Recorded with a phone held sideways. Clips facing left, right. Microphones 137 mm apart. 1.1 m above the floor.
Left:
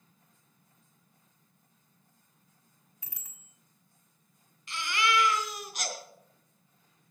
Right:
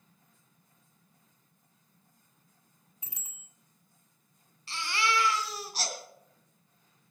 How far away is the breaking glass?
No breaking glass in this recording.